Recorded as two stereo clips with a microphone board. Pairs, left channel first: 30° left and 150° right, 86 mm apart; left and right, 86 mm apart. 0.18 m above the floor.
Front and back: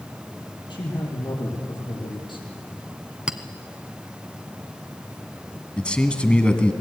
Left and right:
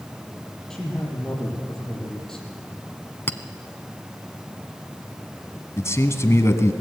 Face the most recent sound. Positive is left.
turn(degrees=95)